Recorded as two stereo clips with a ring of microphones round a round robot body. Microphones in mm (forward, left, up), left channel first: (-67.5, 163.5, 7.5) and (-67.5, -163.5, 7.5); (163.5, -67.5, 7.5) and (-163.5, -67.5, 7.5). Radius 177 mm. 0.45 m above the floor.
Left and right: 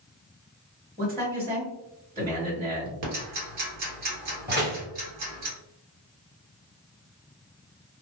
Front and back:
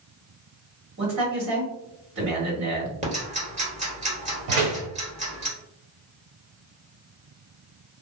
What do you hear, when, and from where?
1.0 s a man speaking: 160° right, 1.8 m
3.0 s ticking: 110° right, 1.7 m
4.5 s a door slam: 150° right, 1.6 m